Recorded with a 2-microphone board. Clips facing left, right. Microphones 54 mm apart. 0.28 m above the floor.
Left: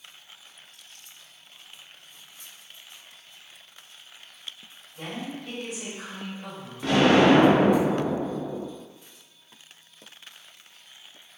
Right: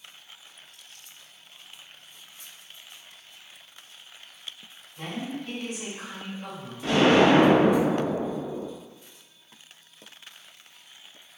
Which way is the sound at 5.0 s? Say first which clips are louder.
Right 1 dB; 15° left (ahead or behind).